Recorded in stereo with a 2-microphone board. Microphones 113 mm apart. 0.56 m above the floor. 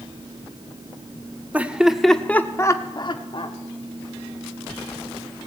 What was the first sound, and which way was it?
Laughter, 15° right (ahead or behind).